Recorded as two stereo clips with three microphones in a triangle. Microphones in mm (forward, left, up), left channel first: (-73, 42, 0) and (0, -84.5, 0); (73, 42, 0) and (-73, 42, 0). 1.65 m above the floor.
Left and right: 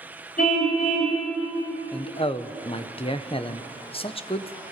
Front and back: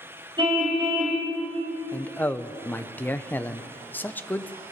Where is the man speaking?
80° left, 0.8 m.